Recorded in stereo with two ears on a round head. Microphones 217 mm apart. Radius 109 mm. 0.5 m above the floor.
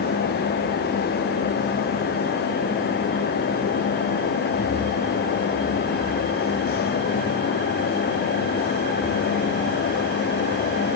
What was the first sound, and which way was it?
Only background noise.